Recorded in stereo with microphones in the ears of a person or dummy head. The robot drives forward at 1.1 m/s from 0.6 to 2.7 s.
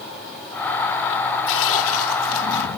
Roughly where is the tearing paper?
Left.